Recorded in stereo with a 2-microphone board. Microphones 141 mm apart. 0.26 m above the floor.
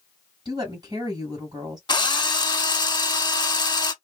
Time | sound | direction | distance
0.5 | a woman speaking | 30° right (ahead or behind) | 1.7 m
1.9 | a drill | 35° left (ahead or behind) | 0.6 m